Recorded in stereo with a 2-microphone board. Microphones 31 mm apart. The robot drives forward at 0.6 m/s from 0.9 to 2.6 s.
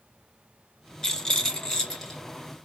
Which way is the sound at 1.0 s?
25° left (ahead or behind).